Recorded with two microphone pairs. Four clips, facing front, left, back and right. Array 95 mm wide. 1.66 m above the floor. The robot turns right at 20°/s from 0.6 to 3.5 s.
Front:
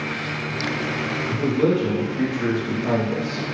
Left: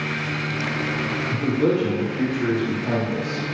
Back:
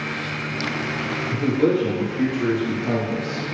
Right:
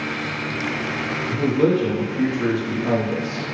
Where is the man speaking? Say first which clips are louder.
Right 3 dB, back 1 dB; 75° right, 0.8 m; by 3.5 s 30° right, 0.8 m.